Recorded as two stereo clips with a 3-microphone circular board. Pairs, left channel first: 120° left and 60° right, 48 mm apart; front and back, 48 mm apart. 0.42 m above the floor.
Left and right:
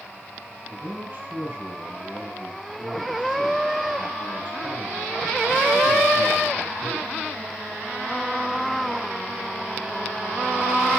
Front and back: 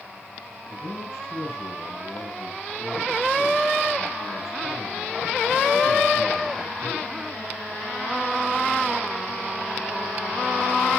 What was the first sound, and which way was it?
A man speaking, straight ahead.